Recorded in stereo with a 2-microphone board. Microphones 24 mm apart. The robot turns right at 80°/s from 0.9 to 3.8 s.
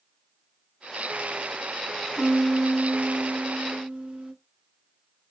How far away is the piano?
About 2.5 m.